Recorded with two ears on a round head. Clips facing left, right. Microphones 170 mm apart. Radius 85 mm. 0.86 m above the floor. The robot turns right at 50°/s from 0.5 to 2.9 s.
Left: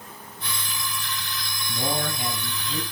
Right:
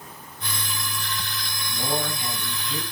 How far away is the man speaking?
About 6.5 m.